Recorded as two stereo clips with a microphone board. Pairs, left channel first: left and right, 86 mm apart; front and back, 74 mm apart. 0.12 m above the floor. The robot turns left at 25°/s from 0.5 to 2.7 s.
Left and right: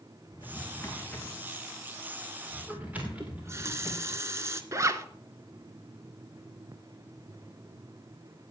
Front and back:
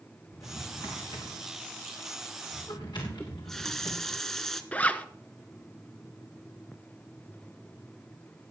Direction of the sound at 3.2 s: 80° right.